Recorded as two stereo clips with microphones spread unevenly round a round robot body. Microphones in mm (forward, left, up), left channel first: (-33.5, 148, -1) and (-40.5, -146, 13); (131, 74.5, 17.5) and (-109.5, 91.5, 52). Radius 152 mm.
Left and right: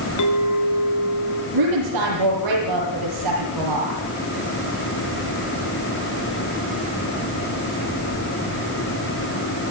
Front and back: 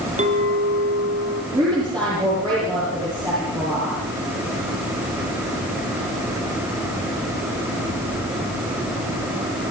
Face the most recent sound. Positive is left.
turn(degrees=-110)